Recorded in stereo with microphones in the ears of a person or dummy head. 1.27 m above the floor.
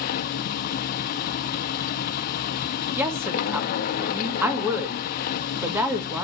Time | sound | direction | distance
0.0 | a machine running | 50° left (ahead or behind) | 0.8 m
3.0 | a woman speaking | 10° right (ahead or behind) | 1.8 m